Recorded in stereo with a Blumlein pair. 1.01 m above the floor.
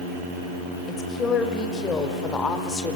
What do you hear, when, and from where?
0.9 s a woman speaking: 20° left, 5 m; by 3.0 s 15° left, 3 m